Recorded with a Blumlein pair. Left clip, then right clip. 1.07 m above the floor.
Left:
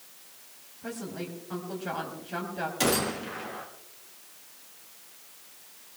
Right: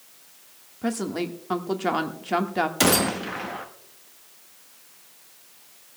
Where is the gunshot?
25° right, 1.3 m.